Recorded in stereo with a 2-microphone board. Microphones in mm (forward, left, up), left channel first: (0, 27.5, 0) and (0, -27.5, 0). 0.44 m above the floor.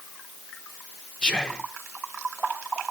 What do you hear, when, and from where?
1.2 s whispering: 15° left (ahead or behind), 0.7 m